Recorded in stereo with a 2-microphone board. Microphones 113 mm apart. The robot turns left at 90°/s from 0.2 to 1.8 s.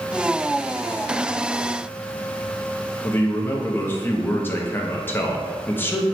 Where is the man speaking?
20° left (ahead or behind), 0.6 m.